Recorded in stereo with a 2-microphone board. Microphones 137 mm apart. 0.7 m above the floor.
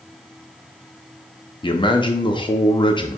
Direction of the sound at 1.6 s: 35° left (ahead or behind).